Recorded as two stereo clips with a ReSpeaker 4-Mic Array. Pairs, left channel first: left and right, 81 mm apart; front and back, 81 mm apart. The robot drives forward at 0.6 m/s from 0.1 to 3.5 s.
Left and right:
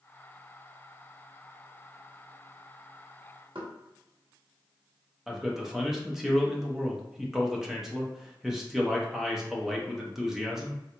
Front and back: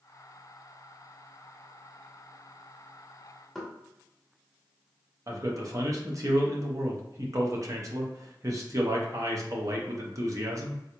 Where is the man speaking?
175° right, 0.8 m.